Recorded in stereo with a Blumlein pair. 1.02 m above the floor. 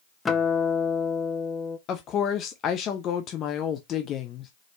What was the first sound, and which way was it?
A guitar, 15° left.